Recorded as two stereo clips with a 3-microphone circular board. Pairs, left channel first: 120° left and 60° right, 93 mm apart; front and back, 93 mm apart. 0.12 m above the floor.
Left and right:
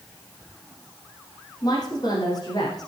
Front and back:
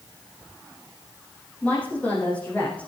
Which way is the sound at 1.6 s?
75° left.